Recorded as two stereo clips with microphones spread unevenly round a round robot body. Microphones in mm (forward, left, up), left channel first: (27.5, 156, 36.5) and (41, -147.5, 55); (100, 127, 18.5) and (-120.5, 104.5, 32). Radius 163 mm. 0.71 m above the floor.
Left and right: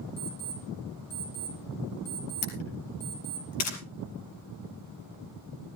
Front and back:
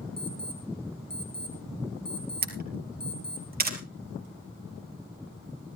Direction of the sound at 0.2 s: 135° left.